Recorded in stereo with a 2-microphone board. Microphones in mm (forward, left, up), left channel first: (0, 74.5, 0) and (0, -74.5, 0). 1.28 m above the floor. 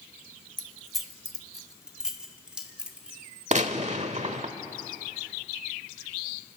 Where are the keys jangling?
Centre (ahead or behind), 1.3 m; by 3.2 s 5° right (ahead or behind), 2.5 m.